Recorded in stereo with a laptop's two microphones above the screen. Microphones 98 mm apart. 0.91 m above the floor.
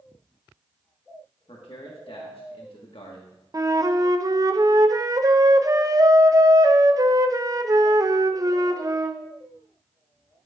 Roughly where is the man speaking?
Left.